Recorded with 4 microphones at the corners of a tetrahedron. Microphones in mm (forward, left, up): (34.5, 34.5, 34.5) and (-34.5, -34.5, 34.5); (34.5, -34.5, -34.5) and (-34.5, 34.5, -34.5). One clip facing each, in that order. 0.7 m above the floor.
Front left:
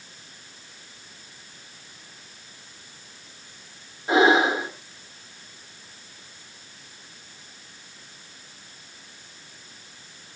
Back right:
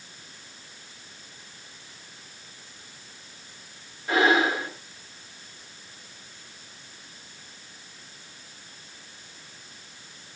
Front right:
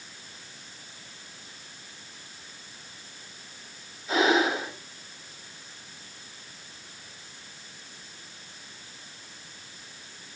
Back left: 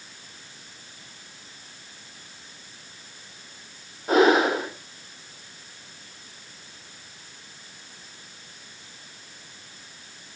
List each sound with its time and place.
4.1 s breathing: 110° left, 2.5 m